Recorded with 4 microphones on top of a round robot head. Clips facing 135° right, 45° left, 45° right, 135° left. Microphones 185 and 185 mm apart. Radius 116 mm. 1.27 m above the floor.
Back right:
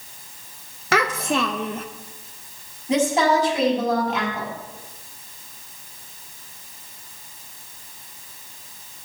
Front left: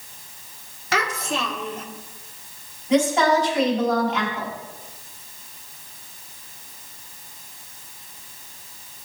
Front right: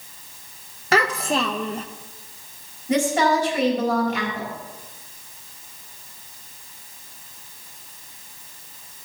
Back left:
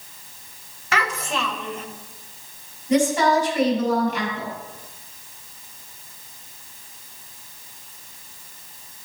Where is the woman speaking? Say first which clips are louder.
Front left 1 dB, back left 1 dB; 75° right, 4 m.